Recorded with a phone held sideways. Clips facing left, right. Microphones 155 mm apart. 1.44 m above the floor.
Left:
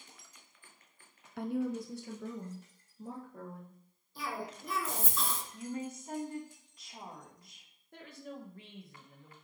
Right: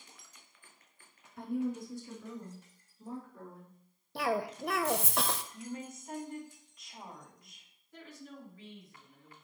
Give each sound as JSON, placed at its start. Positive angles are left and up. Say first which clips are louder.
{"t": 1.4, "sound": "a woman speaking", "louder": "even", "side_deg": 75, "distance_m": 0.7}
{"t": 4.2, "sound": "a cough", "louder": "right 8 dB", "side_deg": -70, "distance_m": 0.8}
{"t": 5.5, "sound": "a woman speaking", "louder": "left 3 dB", "side_deg": 35, "distance_m": 3.5}
{"t": 7.9, "sound": "a woman speaking", "louder": "left 3 dB", "side_deg": 65, "distance_m": 2.5}